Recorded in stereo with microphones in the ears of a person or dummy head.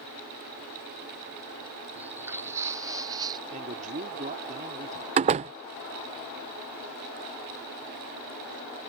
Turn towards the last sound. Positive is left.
turn(degrees=-35)  # may be behind; listen again after turning